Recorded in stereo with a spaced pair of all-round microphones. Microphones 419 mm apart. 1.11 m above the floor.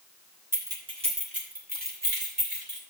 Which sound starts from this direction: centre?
Keys jangling, at 0.5 s.